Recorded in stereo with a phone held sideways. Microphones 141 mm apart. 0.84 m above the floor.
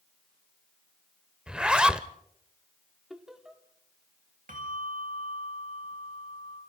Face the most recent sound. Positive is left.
turn(degrees=-75)  # may be behind; listen again after turning